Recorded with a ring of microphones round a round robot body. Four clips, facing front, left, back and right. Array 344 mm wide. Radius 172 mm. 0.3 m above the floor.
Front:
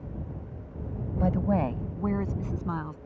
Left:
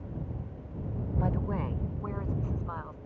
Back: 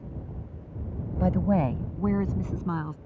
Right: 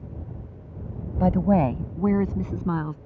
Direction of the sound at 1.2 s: 95° right.